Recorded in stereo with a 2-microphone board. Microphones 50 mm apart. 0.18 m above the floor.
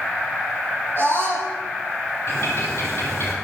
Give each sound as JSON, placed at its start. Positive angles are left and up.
{"t": 1.0, "sound": "a scream", "side_deg": 50, "distance_m": 8.0}
{"t": 2.3, "sound": "a bird", "side_deg": 60, "distance_m": 5.0}